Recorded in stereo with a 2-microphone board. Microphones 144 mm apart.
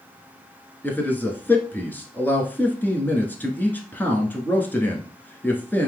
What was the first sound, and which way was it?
A man speaking, 15° left (ahead or behind).